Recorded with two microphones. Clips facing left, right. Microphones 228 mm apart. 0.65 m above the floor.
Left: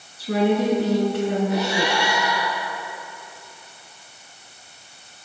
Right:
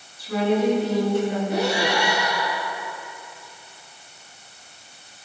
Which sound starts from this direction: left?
A woman speaking, at 0.2 s.